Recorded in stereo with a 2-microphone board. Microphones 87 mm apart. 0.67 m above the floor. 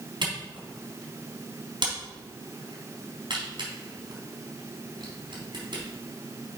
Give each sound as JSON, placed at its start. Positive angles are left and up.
{"t": 0.2, "sound": "a camera shutter", "side_deg": -65, "distance_m": 3.5}